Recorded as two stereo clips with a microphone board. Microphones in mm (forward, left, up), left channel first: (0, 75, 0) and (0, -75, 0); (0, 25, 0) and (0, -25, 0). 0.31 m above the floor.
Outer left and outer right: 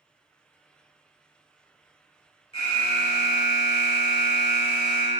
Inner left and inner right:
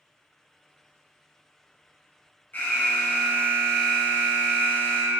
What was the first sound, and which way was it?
An alarm, 40° left (ahead or behind).